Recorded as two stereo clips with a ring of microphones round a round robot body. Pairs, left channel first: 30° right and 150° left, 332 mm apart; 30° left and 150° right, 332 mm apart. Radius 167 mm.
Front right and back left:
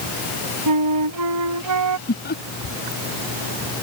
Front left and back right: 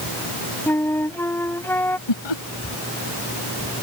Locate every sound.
0.7 s a flute: 115° left
2.1 s laughter: 35° left